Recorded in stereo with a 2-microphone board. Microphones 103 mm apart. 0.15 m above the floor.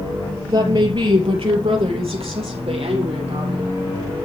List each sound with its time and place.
0.5 s a woman speaking: 45° right (ahead or behind), 3 m; by 3.7 s 70° right (ahead or behind), 5 m